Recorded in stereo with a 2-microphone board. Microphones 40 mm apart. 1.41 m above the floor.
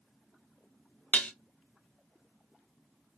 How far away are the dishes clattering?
About 0.7 m.